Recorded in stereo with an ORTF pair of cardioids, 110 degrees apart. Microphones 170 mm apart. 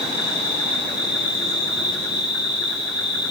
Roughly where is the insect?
Ahead left.